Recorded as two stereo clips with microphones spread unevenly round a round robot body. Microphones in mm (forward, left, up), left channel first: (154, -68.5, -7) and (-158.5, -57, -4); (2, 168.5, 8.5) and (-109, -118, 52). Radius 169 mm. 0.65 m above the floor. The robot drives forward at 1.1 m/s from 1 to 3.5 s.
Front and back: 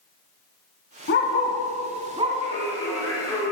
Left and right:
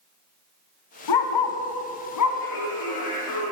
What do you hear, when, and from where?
1.1 s a dog barking: 60° left, 1.7 m; by 2.4 s 110° left, 1.6 m
2.4 s singing: 70° left, 6 m; by 3.5 s 80° left, 6 m